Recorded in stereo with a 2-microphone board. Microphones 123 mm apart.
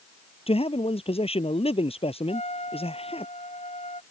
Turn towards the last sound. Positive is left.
turn(degrees=65)  # may be behind; listen again after turning